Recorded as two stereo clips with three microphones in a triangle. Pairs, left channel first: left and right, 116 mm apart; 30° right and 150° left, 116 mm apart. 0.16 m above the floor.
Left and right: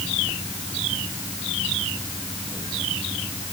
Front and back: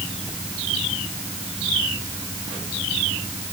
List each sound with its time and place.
Only background noise.